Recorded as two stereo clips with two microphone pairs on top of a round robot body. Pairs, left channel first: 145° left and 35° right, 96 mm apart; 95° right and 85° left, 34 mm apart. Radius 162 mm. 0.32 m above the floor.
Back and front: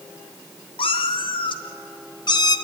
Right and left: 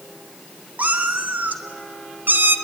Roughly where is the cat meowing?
Behind left.